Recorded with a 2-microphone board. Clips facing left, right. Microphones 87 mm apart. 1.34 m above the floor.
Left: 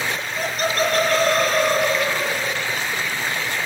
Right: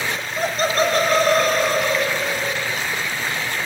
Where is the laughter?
40° right (ahead or behind), 1.2 m; by 2.7 s 25° left (ahead or behind), 2.0 m.